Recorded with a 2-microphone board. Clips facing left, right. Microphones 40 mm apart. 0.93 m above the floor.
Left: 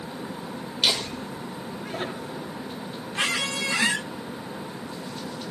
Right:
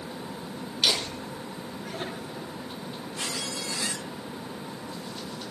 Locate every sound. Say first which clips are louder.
0.8 s laughter: left 1 dB; 20° left (ahead or behind), 4.5 m; by 2.6 s 25° left (ahead or behind), 6 m
3.1 s a squeak: left 9 dB; 65° left (ahead or behind), 0.8 m